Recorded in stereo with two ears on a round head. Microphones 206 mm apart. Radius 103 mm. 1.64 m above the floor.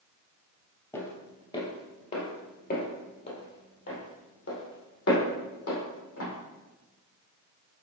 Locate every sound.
0.9 s footsteps: 10° left (ahead or behind), 1.7 m; by 6.3 s 65° left (ahead or behind), 4 m